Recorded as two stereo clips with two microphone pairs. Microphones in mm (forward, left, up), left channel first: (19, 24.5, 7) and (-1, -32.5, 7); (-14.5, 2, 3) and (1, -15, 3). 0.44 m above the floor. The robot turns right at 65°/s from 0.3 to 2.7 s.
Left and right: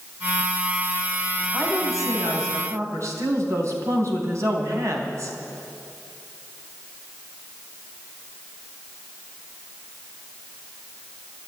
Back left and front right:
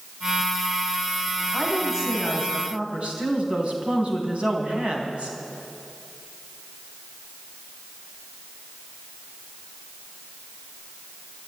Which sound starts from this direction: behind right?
A woman speaking, at 1.5 s.